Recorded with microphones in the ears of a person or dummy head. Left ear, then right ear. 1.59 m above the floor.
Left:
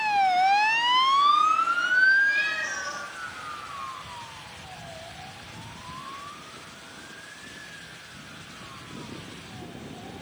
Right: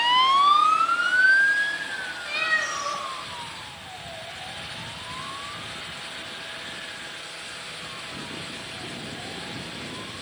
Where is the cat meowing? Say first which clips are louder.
Even; 25° right (ahead or behind), 1.4 m.